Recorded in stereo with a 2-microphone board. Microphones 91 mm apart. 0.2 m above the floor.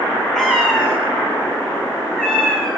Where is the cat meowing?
5° left (ahead or behind), 8 m.